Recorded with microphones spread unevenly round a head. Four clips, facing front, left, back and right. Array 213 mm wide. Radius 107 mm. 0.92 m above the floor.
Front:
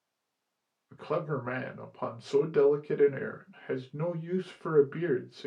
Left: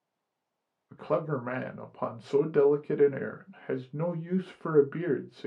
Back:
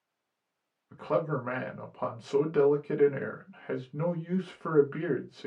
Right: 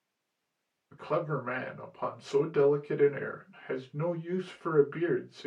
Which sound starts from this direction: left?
A man speaking, at 0.9 s.